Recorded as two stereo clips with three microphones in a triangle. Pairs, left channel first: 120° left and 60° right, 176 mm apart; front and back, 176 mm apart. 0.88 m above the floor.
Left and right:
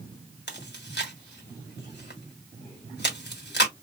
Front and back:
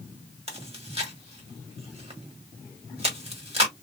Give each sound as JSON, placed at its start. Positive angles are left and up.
{"t": 0.5, "sound": "chewing", "azimuth_deg": 125, "distance_m": 1.2}